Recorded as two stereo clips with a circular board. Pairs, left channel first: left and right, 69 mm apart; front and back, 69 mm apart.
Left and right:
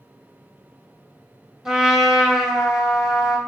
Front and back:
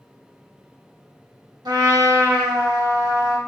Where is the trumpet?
170° right, 0.8 m.